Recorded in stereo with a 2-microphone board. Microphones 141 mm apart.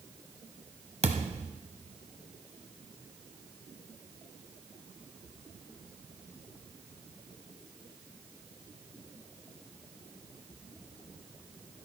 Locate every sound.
1.0 s a thud: 50° right (ahead or behind), 1.2 m